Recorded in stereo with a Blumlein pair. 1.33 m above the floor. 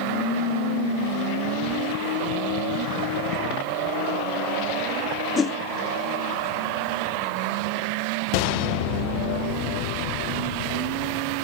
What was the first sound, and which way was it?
A whoosh, 20° left.